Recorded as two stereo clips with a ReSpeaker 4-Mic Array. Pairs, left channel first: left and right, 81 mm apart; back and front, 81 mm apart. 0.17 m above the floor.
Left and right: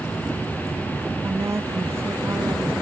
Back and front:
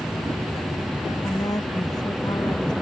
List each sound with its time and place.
1.2 s a woman speaking: 140° right; by 2.7 s 150° right